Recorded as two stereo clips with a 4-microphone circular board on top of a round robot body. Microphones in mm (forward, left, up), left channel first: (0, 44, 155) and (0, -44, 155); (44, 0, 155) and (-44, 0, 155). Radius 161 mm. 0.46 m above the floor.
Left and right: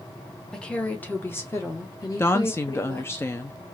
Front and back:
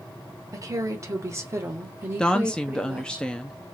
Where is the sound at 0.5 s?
165° left, 1.3 m; by 3.2 s 115° left, 1.9 m.